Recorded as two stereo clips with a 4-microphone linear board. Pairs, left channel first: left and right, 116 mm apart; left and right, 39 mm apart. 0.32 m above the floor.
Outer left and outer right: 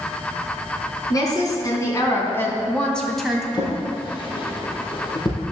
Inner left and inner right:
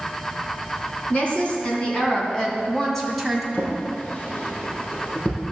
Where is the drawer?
40° left (ahead or behind), 3 m.